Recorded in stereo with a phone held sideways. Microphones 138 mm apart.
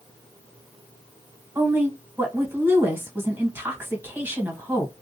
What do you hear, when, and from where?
1.6 s a woman speaking: 15° right (ahead or behind), 1.3 m